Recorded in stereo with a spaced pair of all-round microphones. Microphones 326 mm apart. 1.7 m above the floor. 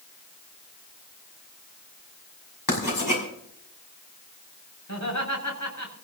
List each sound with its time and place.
2.7 s writing: 85° left, 6 m
4.9 s laughter: 60° left (ahead or behind), 7 m